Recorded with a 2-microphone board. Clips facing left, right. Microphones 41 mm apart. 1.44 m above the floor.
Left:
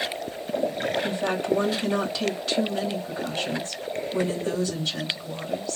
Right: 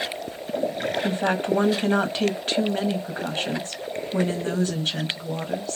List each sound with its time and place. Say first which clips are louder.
1.0 s a woman speaking: right 2 dB; 45° right (ahead or behind), 1.1 m